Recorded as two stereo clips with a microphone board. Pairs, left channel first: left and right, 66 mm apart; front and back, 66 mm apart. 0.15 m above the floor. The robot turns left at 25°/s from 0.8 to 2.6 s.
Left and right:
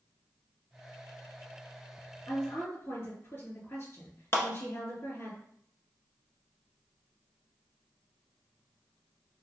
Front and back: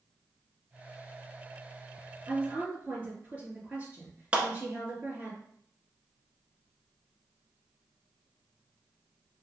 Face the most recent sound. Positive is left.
turn(degrees=115)